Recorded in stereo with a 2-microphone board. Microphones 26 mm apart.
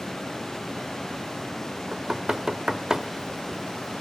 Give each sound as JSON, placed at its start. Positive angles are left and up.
{"t": 1.9, "sound": "knocking", "side_deg": -25, "distance_m": 0.8}